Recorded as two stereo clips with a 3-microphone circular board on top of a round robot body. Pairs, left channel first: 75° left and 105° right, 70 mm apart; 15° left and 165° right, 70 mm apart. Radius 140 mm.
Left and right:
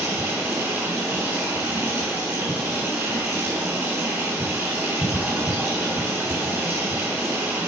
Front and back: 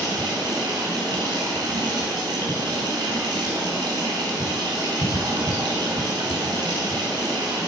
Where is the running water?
165° right, 3.5 m.